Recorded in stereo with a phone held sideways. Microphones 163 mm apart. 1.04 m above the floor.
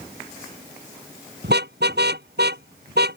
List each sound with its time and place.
1.4 s a car horn: 85° right; by 3.2 s 80° right